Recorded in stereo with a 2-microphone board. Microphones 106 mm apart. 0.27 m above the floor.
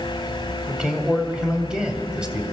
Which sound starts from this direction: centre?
A man speaking, at 0.7 s.